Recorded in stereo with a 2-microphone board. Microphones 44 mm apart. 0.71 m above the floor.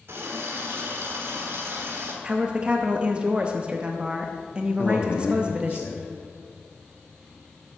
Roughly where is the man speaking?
Left.